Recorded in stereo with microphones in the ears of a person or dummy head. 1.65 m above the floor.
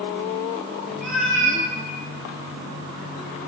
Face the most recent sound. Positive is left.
turn(degrees=5)  # may be behind; listen again after turning